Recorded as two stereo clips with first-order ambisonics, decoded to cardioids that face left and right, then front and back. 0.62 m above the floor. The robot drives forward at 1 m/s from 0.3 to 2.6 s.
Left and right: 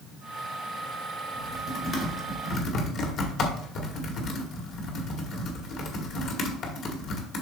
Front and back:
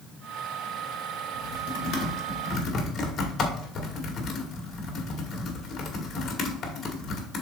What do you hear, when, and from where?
1.3 s typing on a keyboard: 25° left, 2.5 m; by 7.4 s 55° left, 1.5 m